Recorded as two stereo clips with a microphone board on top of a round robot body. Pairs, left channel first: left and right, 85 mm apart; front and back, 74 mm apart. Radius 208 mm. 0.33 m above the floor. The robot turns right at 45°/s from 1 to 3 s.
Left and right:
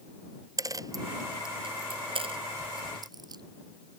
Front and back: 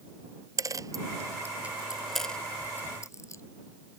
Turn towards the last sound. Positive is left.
turn(degrees=-50)